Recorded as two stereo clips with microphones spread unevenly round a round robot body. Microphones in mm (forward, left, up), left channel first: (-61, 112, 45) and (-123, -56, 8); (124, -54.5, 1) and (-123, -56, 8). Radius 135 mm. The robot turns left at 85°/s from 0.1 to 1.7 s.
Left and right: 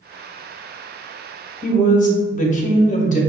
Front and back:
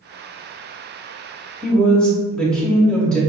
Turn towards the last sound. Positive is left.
turn(degrees=80)